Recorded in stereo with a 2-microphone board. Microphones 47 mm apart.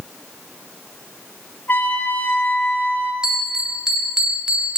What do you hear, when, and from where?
1.7 s a trumpet: 45° left (ahead or behind), 3 m
3.2 s a bell: 15° right (ahead or behind), 1.9 m